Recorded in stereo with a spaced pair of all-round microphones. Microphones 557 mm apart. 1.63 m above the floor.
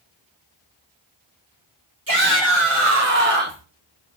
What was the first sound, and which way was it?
A shout, 40° right (ahead or behind).